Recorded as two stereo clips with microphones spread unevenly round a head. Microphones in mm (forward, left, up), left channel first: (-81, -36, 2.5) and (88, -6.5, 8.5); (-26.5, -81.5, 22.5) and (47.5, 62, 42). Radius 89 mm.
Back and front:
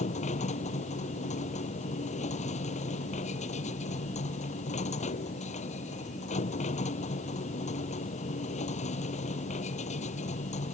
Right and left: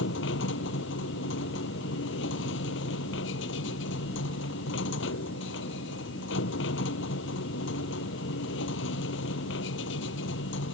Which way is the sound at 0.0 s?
120° right.